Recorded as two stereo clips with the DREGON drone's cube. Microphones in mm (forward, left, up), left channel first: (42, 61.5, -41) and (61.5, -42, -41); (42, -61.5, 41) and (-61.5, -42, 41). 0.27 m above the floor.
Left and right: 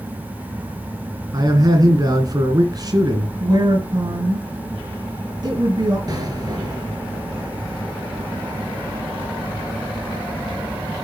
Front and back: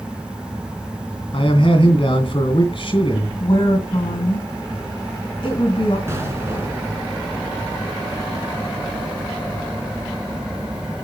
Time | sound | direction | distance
1.3 | a man speaking | 35° right | 2.5 m
3.4 | a woman speaking | 45° right | 2.5 m
6.1 | an explosion | 125° right | 1.8 m